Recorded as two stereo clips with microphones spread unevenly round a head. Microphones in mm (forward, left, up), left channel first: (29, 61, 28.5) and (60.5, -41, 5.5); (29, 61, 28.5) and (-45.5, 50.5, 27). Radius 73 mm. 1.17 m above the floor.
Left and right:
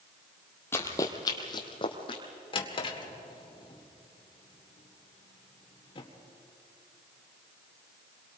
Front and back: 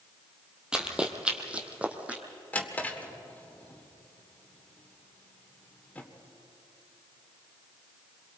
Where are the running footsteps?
110° left, 1.3 m; by 2.2 s 115° left, 2 m.